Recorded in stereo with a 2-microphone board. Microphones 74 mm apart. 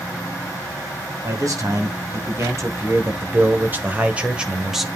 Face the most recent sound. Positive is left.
turn(degrees=-5)  # may be behind; listen again after turning